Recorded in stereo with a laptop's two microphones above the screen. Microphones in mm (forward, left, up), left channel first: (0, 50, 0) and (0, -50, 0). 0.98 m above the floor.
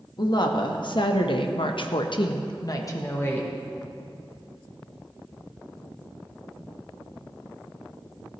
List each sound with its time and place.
0.2 s a woman speaking: 50° left (ahead or behind), 1.4 m; by 3.5 s 20° left (ahead or behind), 1.0 m